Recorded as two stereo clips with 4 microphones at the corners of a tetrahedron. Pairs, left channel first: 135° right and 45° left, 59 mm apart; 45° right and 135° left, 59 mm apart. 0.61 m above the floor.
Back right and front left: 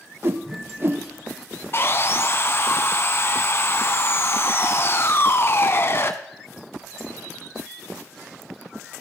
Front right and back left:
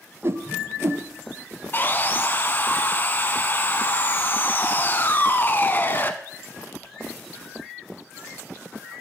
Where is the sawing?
95° right, 0.8 m.